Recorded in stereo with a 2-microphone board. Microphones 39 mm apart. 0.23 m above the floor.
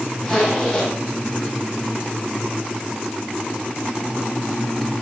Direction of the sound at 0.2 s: 20° left (ahead or behind).